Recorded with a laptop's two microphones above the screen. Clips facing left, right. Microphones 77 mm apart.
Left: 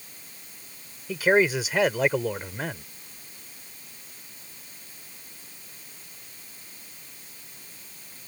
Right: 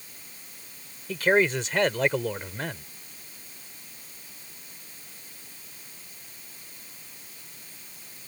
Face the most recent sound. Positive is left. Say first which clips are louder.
# left 1 dB
turn(degrees=5)  # may be behind; listen again after turning